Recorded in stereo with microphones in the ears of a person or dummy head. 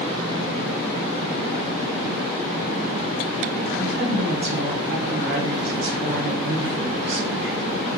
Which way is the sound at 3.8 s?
70° right (ahead or behind).